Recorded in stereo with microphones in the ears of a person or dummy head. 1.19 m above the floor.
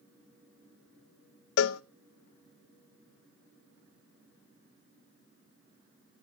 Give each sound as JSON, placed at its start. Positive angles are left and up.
{"t": 1.6, "sound": "a cowbell", "side_deg": 85, "distance_m": 0.6}